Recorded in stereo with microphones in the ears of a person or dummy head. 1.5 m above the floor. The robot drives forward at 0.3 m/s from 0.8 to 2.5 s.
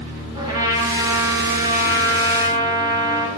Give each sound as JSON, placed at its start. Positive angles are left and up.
{"t": 0.3, "sound": "a trumpet", "side_deg": -30, "distance_m": 7.5}